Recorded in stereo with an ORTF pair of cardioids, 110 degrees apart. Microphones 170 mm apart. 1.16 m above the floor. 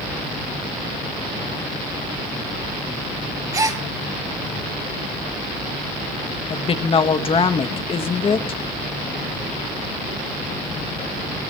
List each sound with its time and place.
3.5 s a gasp: 20° right, 1.9 m
6.5 s a woman speaking: 35° left, 1.7 m